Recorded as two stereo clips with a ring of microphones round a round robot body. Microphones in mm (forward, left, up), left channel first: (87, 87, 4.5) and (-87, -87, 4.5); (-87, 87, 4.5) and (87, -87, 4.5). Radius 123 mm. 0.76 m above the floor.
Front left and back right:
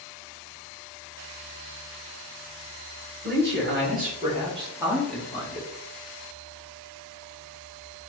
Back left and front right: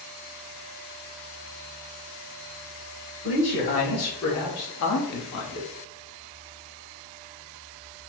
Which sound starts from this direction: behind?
A man speaking, at 3.2 s.